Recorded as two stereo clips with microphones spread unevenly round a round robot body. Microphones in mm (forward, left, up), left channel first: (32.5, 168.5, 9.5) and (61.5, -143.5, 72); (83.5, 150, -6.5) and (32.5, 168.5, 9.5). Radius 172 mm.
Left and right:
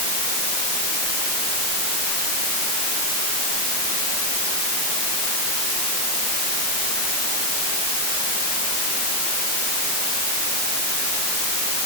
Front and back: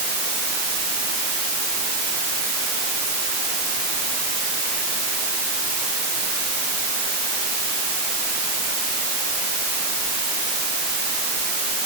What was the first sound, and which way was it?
Only background noise.